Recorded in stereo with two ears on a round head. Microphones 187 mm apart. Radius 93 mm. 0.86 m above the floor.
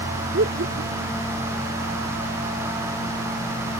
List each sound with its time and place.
0.3 s laughter: 55° right (ahead or behind)